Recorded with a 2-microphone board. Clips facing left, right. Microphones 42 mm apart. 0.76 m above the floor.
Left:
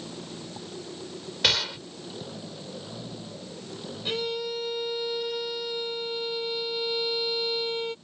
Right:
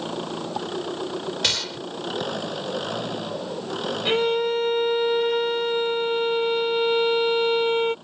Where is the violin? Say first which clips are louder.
Right 9 dB; 50° right (ahead or behind).